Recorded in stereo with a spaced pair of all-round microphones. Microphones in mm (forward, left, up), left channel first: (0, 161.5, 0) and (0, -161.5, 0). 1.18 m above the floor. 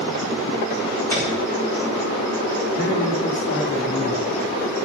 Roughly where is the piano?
Centre.